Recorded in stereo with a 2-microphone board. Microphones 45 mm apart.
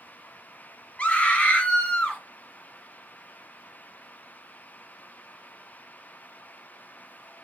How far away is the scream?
About 2 m.